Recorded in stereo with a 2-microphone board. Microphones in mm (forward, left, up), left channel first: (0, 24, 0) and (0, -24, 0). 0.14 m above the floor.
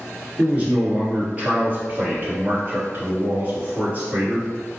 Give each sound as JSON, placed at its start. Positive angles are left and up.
{"t": 0.4, "sound": "a man speaking", "side_deg": -25, "distance_m": 1.9}